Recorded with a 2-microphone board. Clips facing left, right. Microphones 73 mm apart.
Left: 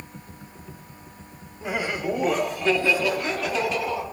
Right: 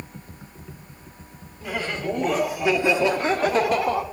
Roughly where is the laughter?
Centre.